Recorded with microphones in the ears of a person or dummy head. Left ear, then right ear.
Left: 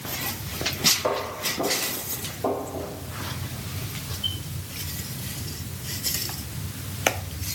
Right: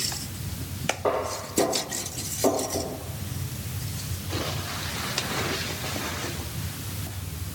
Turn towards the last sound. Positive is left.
turn(degrees=-35)  # may be behind; listen again after turning